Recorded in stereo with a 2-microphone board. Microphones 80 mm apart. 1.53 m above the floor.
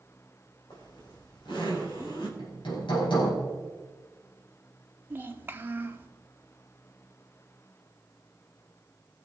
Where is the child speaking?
25° right (ahead or behind), 1.5 m.